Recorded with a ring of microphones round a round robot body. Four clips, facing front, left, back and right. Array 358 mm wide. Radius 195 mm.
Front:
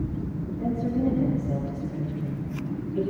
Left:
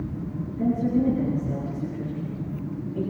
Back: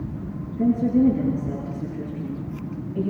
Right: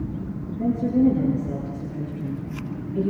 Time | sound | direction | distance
0.6 | a woman speaking | 160° left | 8.5 m